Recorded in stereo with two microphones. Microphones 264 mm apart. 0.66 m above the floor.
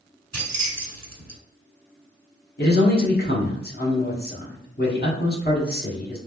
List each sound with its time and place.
0.3 s keys jangling: 65° right (ahead or behind), 1.2 m
2.6 s a man speaking: 35° left (ahead or behind), 1.1 m